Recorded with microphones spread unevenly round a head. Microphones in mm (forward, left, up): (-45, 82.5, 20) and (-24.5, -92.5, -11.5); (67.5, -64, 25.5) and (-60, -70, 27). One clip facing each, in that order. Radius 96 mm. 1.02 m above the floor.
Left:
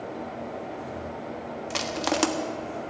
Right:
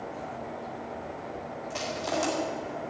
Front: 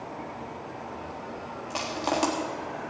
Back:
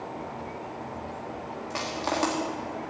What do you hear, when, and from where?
1.7 s crushing: 80° left, 1.4 m